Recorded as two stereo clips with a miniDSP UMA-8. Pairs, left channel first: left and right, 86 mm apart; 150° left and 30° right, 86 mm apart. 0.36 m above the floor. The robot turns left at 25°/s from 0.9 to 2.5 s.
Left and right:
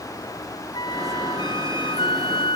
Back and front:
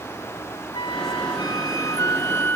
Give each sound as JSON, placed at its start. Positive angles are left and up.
{"t": 0.7, "sound": "a flute", "azimuth_deg": 125}